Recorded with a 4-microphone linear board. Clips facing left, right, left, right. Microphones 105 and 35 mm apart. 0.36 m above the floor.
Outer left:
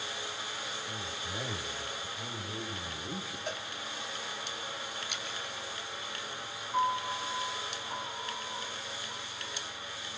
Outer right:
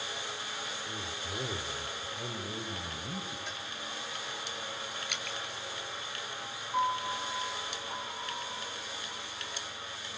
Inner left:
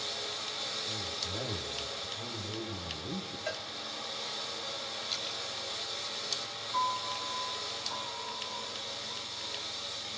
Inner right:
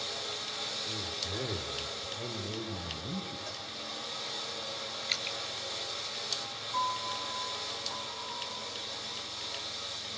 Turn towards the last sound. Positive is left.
turn(degrees=-5)  # may be behind; listen again after turning